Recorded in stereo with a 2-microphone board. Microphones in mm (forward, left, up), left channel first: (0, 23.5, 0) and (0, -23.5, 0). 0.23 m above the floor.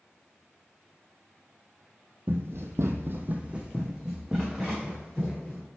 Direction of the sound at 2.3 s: 50° right (ahead or behind).